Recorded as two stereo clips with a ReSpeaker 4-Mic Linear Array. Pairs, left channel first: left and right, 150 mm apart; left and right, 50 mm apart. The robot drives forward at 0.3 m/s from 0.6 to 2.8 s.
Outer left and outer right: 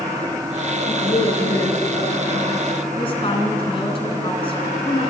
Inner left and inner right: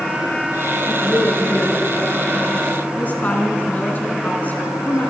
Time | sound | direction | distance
0.8 | a woman speaking | 65° left (ahead or behind) | 9 m
3.0 | a woman speaking | 35° left (ahead or behind) | 3.5 m